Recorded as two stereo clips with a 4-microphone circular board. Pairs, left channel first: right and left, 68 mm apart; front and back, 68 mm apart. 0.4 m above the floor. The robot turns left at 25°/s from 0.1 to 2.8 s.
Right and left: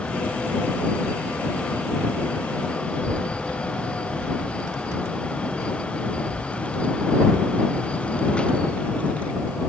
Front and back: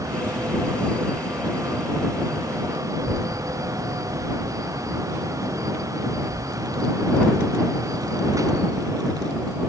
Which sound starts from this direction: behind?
A child speaking, at 2.9 s.